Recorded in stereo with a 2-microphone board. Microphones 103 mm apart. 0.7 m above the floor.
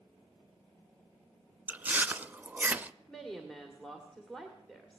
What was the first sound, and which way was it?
Chewing, 15° right (ahead or behind).